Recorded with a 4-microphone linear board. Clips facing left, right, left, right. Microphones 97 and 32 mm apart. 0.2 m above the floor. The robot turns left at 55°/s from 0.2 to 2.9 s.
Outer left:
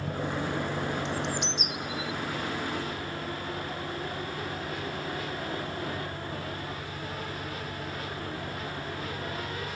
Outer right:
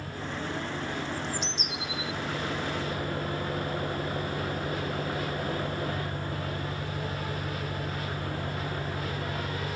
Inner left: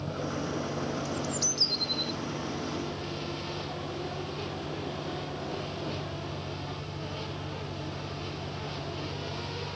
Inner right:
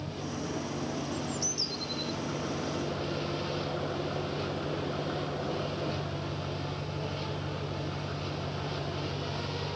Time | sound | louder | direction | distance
0.0 | an engine running | outer left 4 dB, inner left 3 dB | 105° left | ?
1.1 | a bird | outer left 2 dB, inner left 2 dB | 90° left | ?